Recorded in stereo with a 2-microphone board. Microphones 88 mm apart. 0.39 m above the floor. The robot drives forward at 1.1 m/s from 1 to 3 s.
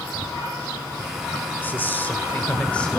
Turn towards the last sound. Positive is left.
turn(degrees=10)  # may be behind; listen again after turning